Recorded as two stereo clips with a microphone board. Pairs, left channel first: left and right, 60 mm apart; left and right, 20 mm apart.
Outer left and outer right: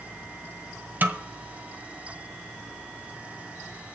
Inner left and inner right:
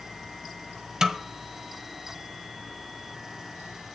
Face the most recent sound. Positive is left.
turn(degrees=-35)  # may be behind; listen again after turning